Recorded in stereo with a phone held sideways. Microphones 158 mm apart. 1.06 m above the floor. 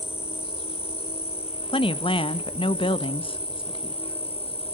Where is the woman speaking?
35° left (ahead or behind), 1.0 m.